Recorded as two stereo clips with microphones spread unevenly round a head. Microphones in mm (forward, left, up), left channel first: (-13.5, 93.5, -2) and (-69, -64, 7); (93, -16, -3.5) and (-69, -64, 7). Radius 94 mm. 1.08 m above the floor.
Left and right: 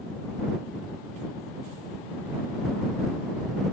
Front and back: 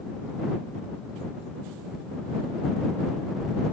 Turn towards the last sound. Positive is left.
No sound to turn to.